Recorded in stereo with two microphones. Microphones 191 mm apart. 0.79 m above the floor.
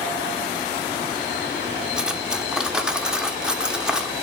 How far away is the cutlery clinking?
About 1.0 m.